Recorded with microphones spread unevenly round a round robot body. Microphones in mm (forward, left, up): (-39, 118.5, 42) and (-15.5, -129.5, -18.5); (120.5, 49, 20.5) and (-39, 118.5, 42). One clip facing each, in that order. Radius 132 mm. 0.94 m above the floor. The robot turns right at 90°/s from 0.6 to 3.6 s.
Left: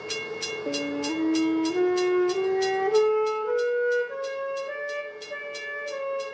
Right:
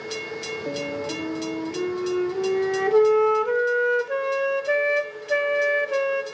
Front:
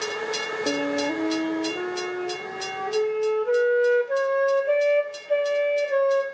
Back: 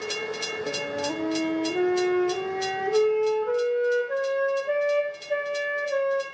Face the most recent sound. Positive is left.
turn(degrees=-80)